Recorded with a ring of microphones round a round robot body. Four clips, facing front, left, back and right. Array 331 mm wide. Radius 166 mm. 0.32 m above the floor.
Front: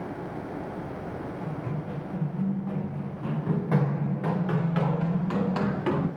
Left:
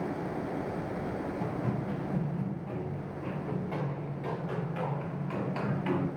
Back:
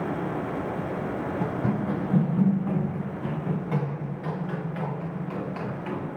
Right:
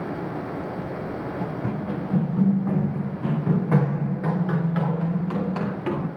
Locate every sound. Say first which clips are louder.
1.4 s running footsteps: right 5 dB, back 7 dB; 160° right, 1.7 m; by 6.1 s 40° right, 3 m